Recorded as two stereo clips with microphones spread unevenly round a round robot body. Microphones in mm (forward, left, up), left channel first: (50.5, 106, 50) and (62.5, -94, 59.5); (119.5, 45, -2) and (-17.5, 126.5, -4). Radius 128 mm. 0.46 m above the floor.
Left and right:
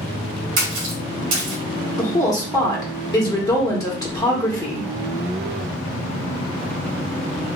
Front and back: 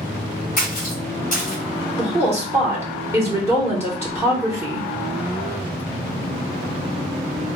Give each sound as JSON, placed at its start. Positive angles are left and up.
{"t": 0.6, "sound": "a splash", "azimuth_deg": -85, "distance_m": 1.3}
{"t": 2.0, "sound": "a woman speaking", "azimuth_deg": 110, "distance_m": 0.9}